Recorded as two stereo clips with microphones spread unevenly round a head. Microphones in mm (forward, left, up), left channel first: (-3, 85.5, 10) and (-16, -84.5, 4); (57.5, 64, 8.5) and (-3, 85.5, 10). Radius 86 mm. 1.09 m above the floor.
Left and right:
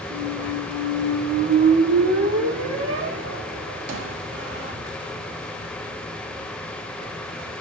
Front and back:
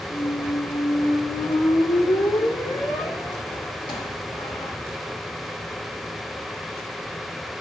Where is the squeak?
70° right, 1.4 m.